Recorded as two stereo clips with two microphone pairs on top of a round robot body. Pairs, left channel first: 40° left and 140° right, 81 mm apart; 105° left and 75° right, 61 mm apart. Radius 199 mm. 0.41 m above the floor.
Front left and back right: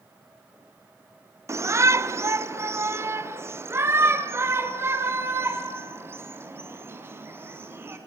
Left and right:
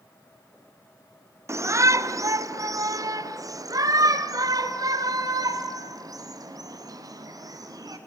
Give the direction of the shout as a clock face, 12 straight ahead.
3 o'clock.